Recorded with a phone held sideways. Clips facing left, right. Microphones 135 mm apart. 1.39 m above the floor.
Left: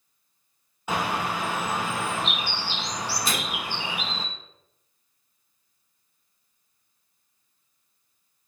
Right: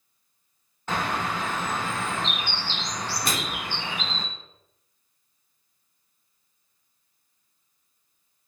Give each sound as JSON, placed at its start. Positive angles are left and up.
{"t": 0.9, "sound": "a bird", "side_deg": 10, "distance_m": 1.6}
{"t": 3.2, "sound": "a microwave", "side_deg": -60, "distance_m": 3.0}